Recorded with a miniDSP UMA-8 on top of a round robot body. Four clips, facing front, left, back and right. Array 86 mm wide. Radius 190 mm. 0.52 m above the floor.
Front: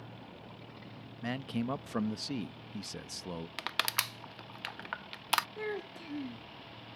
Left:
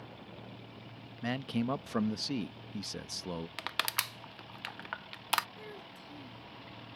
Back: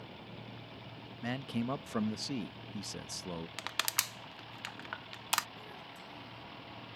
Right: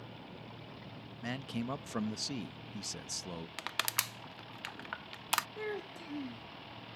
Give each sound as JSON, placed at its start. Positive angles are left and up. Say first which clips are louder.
{"t": 1.2, "sound": "a man speaking", "louder": "left 5 dB, front 1 dB", "azimuth_deg": 75}
{"t": 3.6, "sound": "crushing", "louder": "left 2 dB, front 3 dB", "azimuth_deg": 35}
{"t": 5.6, "sound": "a child speaking", "louder": "right 8 dB, front 10 dB", "azimuth_deg": -35}